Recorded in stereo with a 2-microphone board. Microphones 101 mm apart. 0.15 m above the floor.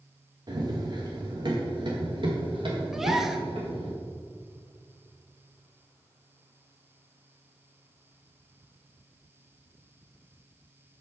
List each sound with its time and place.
0.5 s running footsteps: 50° right (ahead or behind), 3.5 m; by 3.9 s 75° right (ahead or behind), 5 m
2.9 s a gasp: 5° right (ahead or behind), 0.9 m